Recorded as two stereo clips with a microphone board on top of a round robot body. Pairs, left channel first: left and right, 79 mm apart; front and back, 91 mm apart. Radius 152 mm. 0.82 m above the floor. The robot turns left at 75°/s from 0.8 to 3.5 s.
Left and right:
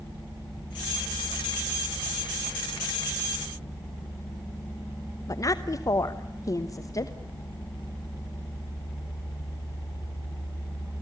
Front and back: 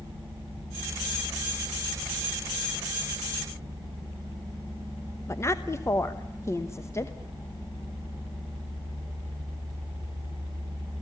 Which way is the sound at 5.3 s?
55° left.